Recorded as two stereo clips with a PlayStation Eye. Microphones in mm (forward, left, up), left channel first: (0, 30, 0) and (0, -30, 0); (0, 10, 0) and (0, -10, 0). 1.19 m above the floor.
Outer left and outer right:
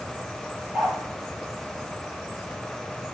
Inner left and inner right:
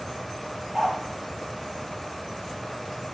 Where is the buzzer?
No buzzer in this recording.